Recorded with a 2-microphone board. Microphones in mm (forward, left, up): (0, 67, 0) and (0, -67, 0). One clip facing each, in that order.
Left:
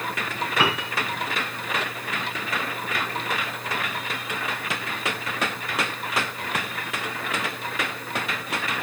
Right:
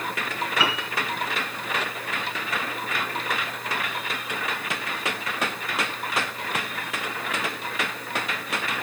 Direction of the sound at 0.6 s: 60° left (ahead or behind).